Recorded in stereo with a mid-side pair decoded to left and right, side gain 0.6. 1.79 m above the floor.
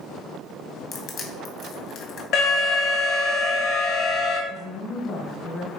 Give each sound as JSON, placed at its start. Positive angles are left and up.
{"t": 0.9, "sound": "crushing", "azimuth_deg": 55, "distance_m": 1.9}
{"t": 2.3, "sound": "an alarm", "azimuth_deg": 70, "distance_m": 2.5}
{"t": 4.5, "sound": "a woman speaking", "azimuth_deg": 50, "distance_m": 1.6}